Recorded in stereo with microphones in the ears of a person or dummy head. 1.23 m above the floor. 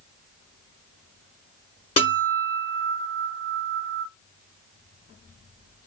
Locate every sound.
2.0 s a guitar: 30° left (ahead or behind), 1.0 m